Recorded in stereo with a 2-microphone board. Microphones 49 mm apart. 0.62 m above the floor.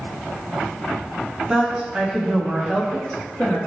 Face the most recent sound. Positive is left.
turn(degrees=20)  # may be behind; listen again after turning